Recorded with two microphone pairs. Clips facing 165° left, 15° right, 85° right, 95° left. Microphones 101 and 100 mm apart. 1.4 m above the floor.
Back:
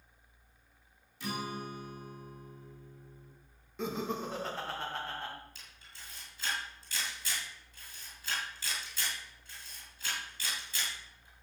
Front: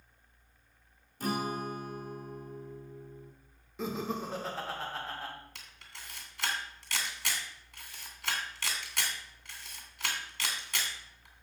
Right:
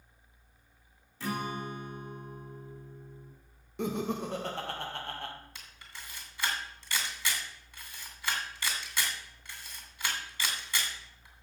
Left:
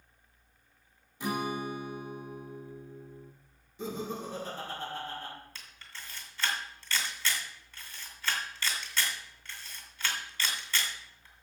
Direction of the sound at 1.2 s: 20° left.